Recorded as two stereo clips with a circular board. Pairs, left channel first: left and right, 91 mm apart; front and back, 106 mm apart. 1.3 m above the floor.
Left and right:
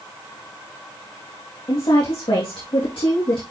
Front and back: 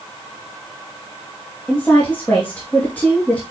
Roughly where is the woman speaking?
Left.